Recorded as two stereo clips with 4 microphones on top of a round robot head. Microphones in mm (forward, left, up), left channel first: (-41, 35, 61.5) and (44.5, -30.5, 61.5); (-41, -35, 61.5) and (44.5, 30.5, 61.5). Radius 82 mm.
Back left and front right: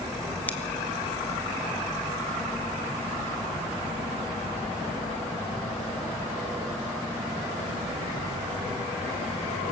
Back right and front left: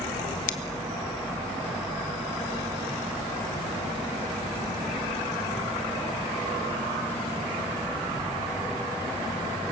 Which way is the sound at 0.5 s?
140° right.